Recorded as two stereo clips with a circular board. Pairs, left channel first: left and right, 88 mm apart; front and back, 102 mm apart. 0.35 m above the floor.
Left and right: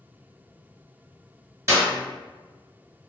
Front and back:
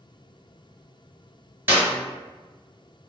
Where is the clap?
125° right, 1.2 m.